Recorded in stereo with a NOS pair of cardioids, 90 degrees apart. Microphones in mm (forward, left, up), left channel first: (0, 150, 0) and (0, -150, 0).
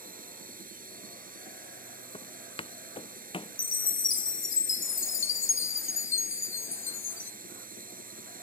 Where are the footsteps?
15° left.